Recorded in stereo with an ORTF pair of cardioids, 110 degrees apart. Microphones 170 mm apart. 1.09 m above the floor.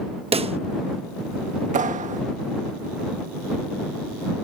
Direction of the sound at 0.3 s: 35° right.